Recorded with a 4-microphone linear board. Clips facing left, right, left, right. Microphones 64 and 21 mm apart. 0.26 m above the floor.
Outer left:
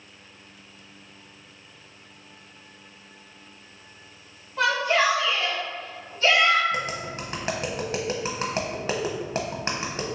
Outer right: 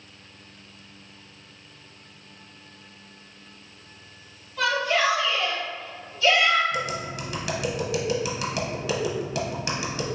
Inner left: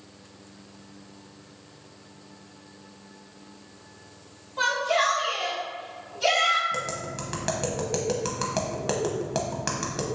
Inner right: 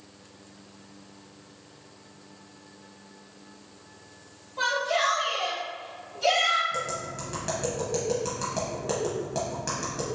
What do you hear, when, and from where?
4.6 s a shout: 35° left (ahead or behind), 1.6 m; by 6.6 s 45° left (ahead or behind), 2.5 m
6.7 s tapping: 40° left (ahead or behind), 0.8 m